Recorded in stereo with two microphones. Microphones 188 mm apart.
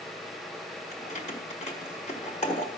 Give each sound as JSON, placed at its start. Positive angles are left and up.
{"t": 0.9, "sound": "keys jangling", "side_deg": 40, "distance_m": 1.5}